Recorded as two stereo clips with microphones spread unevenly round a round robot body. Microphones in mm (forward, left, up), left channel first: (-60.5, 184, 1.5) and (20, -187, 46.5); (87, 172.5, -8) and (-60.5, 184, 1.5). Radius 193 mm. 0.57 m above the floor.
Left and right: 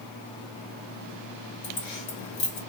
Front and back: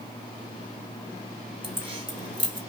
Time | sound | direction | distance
1.6 | keys jangling | 120° left | 3 m